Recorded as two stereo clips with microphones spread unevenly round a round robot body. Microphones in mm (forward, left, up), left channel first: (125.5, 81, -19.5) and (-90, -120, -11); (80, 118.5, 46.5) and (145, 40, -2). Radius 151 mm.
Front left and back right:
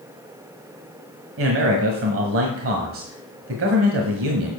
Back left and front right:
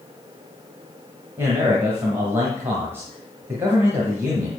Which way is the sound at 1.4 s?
100° right.